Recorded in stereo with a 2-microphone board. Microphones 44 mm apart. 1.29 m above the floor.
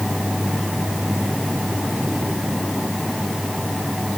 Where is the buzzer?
I don't hear a buzzer.